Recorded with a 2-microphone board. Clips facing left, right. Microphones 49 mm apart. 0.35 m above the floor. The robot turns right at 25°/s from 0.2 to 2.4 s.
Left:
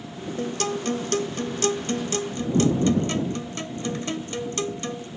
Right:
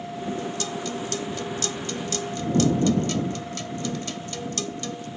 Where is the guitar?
90° left; by 5.1 s 140° left.